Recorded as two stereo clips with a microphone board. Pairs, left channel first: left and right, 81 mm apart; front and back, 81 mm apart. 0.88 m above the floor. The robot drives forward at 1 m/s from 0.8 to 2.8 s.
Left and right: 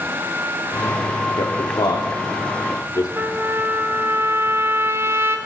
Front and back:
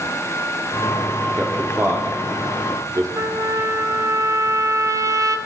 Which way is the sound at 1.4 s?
100° left.